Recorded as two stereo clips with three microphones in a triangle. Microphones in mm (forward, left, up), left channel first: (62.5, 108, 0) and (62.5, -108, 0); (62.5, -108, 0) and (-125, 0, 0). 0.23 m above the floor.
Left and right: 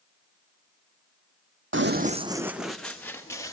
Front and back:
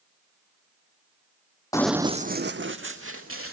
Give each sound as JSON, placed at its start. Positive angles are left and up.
{"t": 1.7, "sound": "running footsteps", "azimuth_deg": -105, "distance_m": 0.7}